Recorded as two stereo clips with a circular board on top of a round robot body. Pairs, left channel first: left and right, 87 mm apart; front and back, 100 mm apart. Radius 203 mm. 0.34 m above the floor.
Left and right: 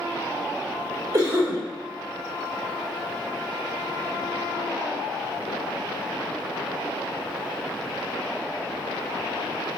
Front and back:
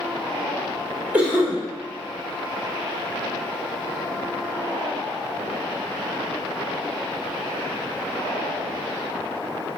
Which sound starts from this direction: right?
A cough, at 1.1 s.